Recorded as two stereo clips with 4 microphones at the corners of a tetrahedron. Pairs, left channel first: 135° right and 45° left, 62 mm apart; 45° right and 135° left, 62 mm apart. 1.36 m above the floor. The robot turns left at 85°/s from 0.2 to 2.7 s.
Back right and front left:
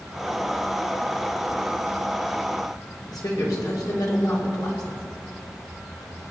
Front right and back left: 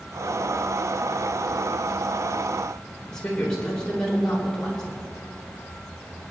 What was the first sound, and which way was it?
A woman speaking, 120° right.